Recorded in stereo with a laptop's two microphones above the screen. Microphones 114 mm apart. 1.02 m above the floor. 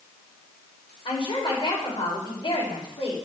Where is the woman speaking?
45° left (ahead or behind), 4 m.